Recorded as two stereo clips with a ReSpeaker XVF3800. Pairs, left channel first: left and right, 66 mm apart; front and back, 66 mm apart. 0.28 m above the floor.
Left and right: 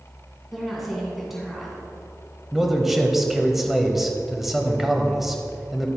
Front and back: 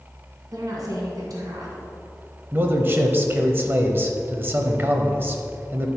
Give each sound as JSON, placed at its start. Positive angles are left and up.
{"t": 0.5, "sound": "a woman speaking", "azimuth_deg": 180, "distance_m": 2.5}
{"t": 2.5, "sound": "a man speaking", "azimuth_deg": -175, "distance_m": 1.0}